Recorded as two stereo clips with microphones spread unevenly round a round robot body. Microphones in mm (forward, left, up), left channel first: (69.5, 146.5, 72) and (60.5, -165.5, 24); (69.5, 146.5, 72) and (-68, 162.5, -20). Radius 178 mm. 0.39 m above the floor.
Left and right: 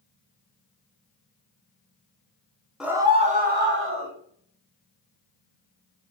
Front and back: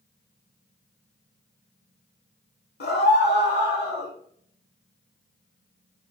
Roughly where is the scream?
Ahead.